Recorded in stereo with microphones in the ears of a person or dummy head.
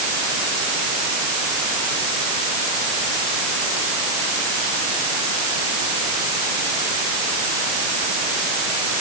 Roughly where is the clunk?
No clunk in this recording.